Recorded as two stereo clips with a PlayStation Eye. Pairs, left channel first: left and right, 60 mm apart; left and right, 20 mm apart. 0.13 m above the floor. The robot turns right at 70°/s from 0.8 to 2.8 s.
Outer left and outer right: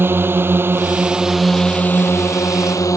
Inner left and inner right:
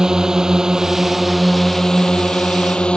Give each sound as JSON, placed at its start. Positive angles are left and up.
{"t": 0.0, "sound": "a drone", "azimuth_deg": -40}